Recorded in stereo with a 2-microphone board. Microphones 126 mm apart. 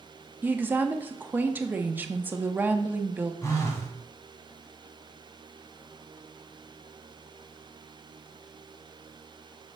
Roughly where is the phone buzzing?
Left.